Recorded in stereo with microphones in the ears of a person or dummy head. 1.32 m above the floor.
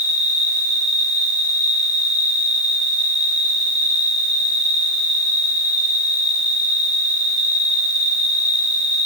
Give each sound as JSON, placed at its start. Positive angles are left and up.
{"t": 0.0, "sound": "an insect", "side_deg": 35, "distance_m": 5.5}